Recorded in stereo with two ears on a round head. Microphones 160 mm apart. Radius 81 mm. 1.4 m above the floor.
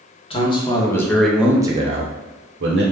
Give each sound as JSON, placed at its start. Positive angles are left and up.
{"t": 0.3, "sound": "a man speaking", "side_deg": 30, "distance_m": 1.1}